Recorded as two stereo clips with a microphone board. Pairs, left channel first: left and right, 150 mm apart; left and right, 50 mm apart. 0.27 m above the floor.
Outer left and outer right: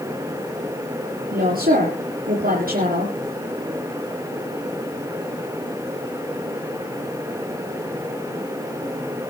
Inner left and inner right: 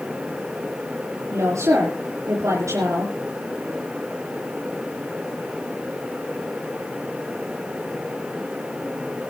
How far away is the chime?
I don't hear a chime.